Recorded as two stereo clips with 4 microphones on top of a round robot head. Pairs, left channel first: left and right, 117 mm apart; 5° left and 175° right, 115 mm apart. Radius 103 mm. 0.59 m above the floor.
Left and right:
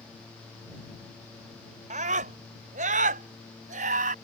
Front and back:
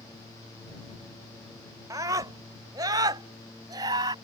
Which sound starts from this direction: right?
A scream, at 1.9 s.